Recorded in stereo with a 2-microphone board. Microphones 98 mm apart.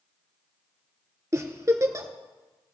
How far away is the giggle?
About 0.9 m.